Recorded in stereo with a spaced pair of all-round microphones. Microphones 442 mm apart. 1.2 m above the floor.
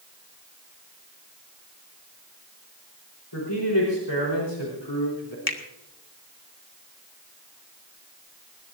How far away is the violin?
No violin in this recording.